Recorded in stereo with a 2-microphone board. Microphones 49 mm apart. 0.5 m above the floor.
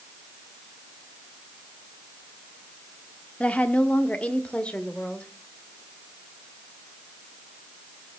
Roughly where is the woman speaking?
Left.